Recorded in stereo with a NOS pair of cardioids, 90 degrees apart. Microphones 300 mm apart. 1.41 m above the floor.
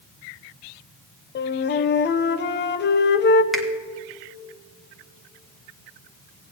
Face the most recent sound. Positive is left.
turn(degrees=0)